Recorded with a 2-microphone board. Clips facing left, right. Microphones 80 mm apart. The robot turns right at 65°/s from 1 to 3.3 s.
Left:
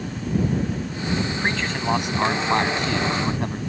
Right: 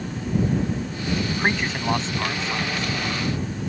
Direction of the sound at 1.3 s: 35° right.